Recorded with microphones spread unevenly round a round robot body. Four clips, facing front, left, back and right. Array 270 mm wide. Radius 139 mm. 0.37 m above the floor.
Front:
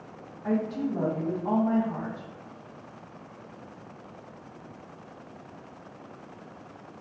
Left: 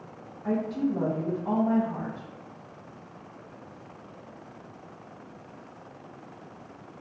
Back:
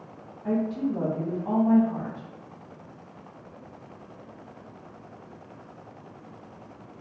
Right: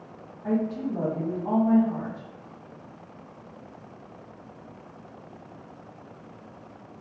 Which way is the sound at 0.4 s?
40° right.